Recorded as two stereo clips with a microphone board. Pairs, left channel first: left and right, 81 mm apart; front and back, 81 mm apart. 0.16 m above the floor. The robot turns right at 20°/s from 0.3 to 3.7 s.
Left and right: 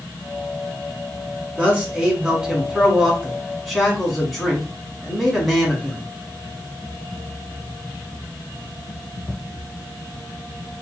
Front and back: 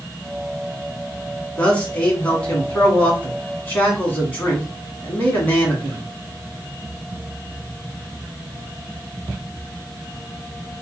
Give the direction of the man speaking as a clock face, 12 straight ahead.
2 o'clock.